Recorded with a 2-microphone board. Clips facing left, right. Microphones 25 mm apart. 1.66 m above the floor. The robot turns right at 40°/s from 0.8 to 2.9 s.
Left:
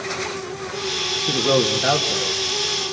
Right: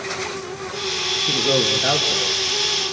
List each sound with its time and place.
1.3 s a man speaking: 150° left, 2 m; by 2.4 s 165° right, 2 m